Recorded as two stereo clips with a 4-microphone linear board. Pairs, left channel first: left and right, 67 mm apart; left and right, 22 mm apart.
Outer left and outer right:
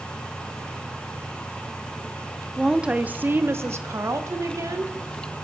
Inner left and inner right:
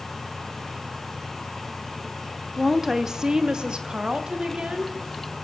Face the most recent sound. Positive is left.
turn(degrees=-60)  # may be behind; listen again after turning